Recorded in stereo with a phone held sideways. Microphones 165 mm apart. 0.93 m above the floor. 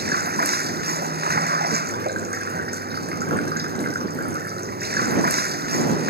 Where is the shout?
No shout in this recording.